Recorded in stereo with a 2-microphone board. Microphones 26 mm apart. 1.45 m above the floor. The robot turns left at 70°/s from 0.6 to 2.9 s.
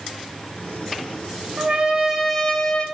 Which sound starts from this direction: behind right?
A trumpet, at 1.6 s.